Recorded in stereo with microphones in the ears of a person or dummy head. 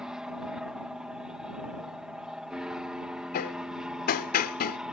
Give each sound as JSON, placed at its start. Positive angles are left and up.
{"t": 0.0, "sound": "an aircraft", "side_deg": -10}
{"t": 3.3, "sound": "hammering", "side_deg": 40}